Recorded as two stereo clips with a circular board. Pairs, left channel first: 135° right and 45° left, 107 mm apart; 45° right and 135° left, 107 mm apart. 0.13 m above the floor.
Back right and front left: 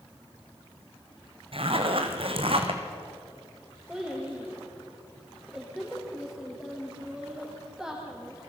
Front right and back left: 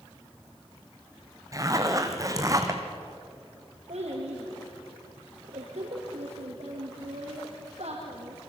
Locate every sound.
1.5 s a zipper: 75° left, 2.5 m
3.9 s a child speaking: 130° left, 5.5 m